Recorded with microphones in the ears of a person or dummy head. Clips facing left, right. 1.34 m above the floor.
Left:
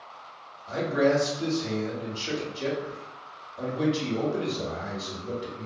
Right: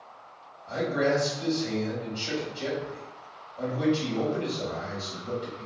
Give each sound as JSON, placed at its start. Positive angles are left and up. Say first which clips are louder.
{"t": 0.7, "sound": "a man speaking", "louder": "left 2 dB", "side_deg": 20, "distance_m": 1.6}